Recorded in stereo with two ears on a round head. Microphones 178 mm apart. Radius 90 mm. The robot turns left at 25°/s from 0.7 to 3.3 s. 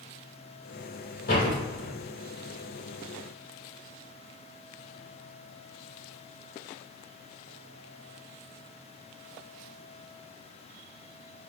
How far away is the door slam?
About 1.1 m.